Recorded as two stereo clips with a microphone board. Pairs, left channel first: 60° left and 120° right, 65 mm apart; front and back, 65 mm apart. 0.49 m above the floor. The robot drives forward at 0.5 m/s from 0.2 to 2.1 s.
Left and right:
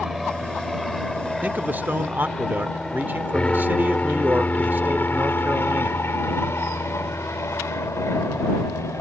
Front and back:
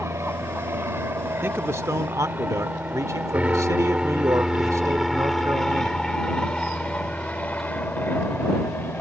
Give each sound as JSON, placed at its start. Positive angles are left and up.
{"t": 0.0, "sound": "an aircraft", "azimuth_deg": 150}
{"t": 1.4, "sound": "a man speaking", "azimuth_deg": -165}